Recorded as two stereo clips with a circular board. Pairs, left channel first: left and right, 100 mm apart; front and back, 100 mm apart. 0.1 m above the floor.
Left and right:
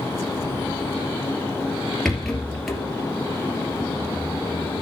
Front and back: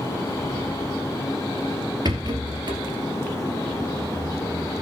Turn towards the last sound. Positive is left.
turn(degrees=175)